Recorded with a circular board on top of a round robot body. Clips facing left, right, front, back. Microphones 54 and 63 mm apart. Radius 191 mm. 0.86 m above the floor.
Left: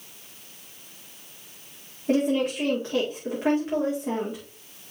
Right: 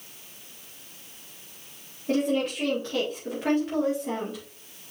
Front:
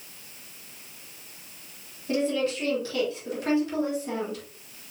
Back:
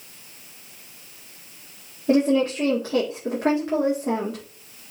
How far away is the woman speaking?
About 2 m.